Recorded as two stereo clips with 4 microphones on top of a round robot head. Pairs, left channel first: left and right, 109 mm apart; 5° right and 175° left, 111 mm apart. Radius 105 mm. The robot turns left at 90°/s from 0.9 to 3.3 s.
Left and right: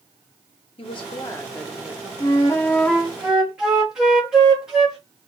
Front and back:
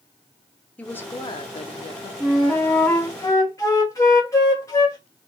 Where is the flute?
85° left, 1.1 m; by 5.0 s 10° right, 1.1 m.